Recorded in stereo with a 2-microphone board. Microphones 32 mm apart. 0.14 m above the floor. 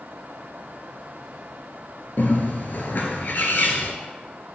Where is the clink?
No clink in this recording.